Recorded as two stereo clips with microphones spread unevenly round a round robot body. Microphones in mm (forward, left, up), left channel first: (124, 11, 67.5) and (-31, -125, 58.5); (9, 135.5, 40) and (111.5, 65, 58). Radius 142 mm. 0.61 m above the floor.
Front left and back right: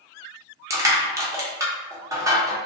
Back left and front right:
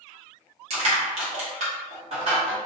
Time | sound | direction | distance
0.7 | crushing | 70° right | 1.0 m